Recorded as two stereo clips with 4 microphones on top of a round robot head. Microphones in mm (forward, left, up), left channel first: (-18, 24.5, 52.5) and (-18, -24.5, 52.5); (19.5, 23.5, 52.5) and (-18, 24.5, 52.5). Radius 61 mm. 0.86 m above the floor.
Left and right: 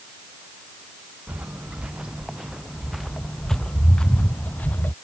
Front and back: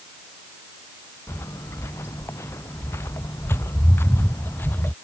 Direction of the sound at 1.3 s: 20° right.